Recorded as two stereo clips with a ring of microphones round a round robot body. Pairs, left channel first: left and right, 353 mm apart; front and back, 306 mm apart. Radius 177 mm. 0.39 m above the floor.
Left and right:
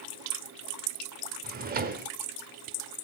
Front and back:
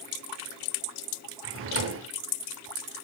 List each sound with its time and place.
1.4 s a drawer: 145° right, 0.6 m